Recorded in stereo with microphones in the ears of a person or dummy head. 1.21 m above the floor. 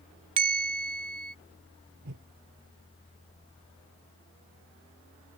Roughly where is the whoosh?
Right.